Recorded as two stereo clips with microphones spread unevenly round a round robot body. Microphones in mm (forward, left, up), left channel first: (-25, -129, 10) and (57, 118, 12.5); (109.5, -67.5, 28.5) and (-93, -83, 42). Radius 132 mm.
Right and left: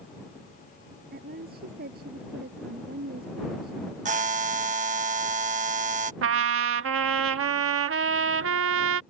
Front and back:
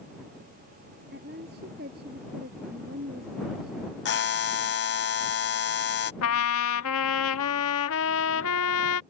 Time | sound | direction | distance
1.1 | a woman speaking | 130° left | ?
4.0 | a buzzer | 15° left | ?
6.2 | a trumpet | 30° left | ?